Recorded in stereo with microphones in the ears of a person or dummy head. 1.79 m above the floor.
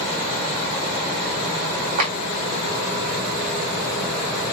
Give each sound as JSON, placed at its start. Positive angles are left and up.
{"t": 2.0, "sound": "a clap", "side_deg": -45, "distance_m": 1.6}